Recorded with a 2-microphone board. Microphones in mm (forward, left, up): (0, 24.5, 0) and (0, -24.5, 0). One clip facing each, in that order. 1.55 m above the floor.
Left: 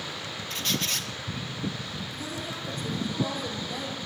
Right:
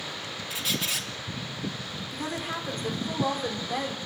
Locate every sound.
0.5 s a squeak: 5° right (ahead or behind), 1.5 m
2.1 s a woman speaking: 50° right (ahead or behind), 4.5 m